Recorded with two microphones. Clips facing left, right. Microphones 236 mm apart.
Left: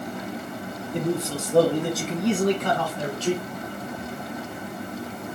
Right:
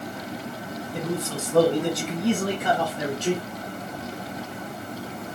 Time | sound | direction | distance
0.9 | a man speaking | 25° left (ahead or behind) | 1.3 m